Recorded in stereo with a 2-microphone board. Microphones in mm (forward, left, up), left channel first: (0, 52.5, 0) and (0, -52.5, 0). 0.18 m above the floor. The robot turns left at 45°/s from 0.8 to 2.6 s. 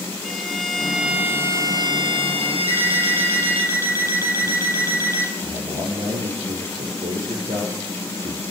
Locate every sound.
0.2 s a violin: 5° left, 3.5 m; by 3.7 s 75° right, 3.5 m
2.7 s an alarm clock: 30° left (ahead or behind), 4 m
5.4 s a man speaking: 60° right (ahead or behind), 7 m